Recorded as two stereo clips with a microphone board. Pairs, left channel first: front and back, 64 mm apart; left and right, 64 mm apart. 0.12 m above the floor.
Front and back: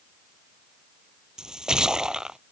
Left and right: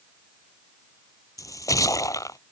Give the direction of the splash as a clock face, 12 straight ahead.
9 o'clock.